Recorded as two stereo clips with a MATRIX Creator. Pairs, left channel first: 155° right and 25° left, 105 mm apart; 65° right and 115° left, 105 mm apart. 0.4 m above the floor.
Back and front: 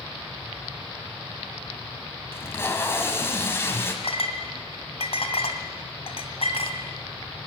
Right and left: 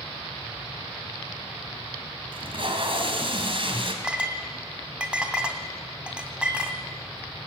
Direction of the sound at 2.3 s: 135° left.